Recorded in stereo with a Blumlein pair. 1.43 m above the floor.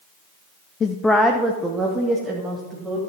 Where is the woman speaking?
25° left, 0.6 m; by 3.0 s 20° right, 2.5 m.